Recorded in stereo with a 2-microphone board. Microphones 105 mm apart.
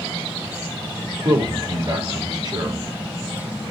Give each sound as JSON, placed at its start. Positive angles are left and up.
{"t": 1.2, "sound": "a man speaking", "side_deg": -45, "distance_m": 1.4}